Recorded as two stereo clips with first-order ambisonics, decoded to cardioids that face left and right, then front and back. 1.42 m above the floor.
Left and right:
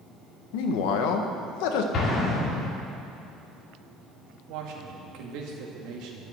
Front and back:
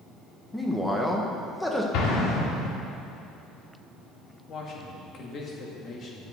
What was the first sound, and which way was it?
A man speaking, 85° left.